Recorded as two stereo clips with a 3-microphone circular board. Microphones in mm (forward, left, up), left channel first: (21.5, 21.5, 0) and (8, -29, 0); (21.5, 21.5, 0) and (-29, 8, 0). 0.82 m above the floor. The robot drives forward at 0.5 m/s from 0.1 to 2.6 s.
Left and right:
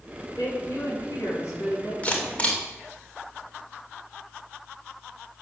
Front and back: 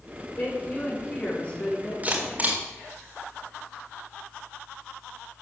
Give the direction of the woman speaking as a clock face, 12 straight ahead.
10 o'clock.